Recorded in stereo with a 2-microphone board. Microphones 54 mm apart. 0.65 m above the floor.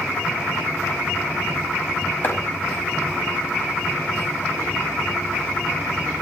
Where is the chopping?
40° left (ahead or behind), 5 m.